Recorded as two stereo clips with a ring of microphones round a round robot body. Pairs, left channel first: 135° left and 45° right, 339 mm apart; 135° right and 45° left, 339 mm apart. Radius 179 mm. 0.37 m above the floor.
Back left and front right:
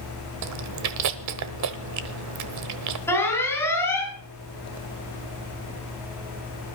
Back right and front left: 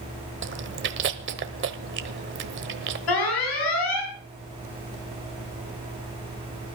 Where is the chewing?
10° right, 1.1 m.